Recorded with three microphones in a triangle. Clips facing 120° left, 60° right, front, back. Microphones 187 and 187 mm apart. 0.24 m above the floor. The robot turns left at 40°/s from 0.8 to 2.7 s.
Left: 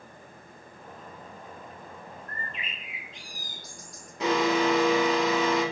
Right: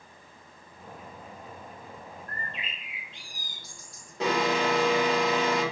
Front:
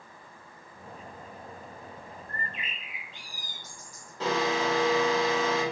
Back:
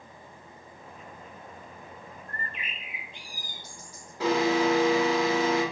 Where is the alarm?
105° right, 1.6 m.